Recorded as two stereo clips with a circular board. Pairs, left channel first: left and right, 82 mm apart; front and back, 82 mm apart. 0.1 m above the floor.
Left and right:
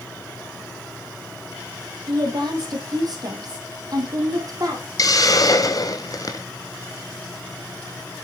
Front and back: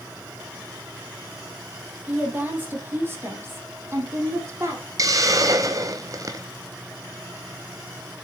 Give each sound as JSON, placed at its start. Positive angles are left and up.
{"t": 2.1, "sound": "a woman speaking", "azimuth_deg": -110, "distance_m": 3.5}
{"t": 5.0, "sound": "a hiss", "azimuth_deg": 135, "distance_m": 1.0}